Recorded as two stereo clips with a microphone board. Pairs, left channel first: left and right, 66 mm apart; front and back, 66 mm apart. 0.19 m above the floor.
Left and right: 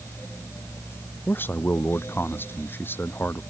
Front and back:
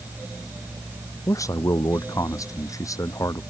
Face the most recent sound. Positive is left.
turn(degrees=30)